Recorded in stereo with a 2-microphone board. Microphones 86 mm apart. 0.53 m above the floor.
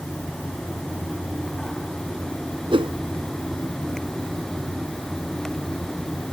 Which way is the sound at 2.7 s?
85° right.